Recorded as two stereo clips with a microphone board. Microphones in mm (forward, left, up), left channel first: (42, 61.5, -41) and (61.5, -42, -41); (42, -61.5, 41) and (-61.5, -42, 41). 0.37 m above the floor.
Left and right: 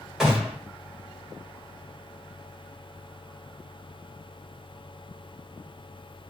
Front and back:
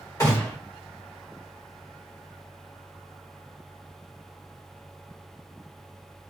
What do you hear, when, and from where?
0.2 s a gunshot: 5° left, 1.3 m